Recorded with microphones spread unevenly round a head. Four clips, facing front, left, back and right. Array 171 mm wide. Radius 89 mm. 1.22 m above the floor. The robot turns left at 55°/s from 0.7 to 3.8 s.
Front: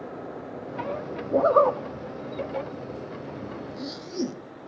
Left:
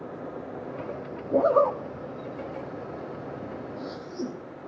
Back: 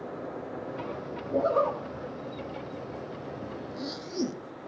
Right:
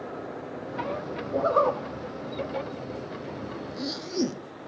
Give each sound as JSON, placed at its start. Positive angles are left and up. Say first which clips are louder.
{"t": 1.3, "sound": "a zipper", "louder": "left 2 dB, front 6 dB", "azimuth_deg": 20, "distance_m": 1.2}